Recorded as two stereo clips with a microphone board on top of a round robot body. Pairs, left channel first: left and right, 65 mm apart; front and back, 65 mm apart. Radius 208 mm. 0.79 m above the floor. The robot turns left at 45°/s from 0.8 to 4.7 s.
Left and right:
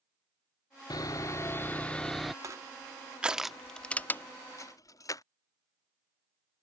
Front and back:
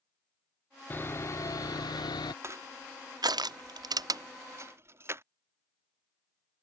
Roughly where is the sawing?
Ahead left.